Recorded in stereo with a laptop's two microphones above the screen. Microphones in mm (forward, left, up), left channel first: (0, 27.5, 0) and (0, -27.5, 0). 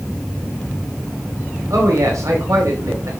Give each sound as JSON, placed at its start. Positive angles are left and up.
{"t": 1.7, "sound": "a man speaking", "side_deg": -75, "distance_m": 2.5}